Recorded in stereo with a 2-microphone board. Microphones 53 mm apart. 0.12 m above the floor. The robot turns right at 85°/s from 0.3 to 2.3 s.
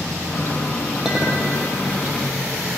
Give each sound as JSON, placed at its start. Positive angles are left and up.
{"t": 1.1, "sound": "a clink", "azimuth_deg": -170, "distance_m": 2.5}